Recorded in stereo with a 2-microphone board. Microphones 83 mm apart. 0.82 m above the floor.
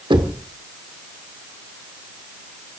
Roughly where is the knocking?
Right.